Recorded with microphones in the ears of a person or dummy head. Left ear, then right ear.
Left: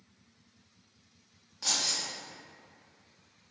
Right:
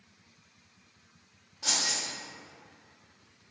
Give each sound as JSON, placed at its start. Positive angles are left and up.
{"t": 1.6, "sound": "keys jangling", "side_deg": 50, "distance_m": 1.0}